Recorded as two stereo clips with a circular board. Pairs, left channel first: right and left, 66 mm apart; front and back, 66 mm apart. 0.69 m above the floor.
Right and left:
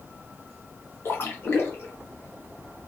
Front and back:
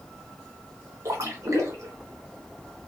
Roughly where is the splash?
Behind right.